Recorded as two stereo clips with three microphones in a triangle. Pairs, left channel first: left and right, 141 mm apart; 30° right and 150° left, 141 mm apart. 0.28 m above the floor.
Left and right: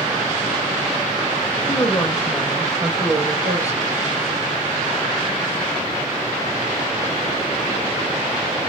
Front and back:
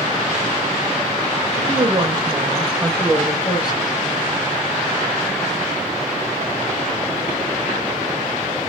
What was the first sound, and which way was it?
A woman speaking, 150° left.